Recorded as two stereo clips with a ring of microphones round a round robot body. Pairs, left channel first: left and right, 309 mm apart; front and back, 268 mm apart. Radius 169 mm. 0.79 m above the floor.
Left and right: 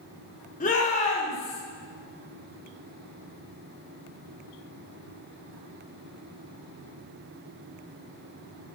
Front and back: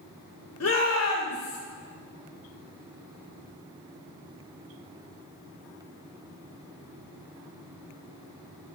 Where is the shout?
25° left, 2.5 m; by 1.6 s 20° left, 3.5 m.